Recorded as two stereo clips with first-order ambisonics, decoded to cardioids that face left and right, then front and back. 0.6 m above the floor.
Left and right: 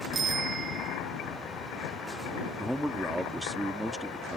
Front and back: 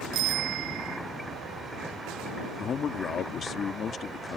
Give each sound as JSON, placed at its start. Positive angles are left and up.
{"t": 0.1, "sound": "a bicycle bell", "azimuth_deg": -155}
{"t": 2.6, "sound": "a man speaking", "azimuth_deg": -5}